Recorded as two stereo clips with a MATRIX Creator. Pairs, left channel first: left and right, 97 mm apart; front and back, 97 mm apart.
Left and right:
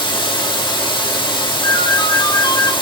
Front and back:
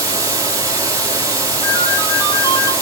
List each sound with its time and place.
0.0 s running water: 125° left, 3.5 m
1.6 s a ringtone: 50° left, 2 m